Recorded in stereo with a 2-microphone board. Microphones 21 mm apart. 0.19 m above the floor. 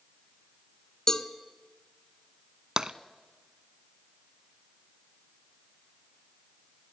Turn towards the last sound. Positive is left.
turn(degrees=-40)  # may be behind; listen again after turning